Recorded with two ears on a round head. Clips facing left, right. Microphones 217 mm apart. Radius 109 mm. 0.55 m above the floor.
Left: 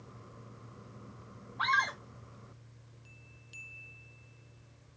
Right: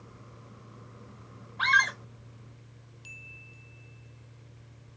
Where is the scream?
40° right (ahead or behind), 3 m.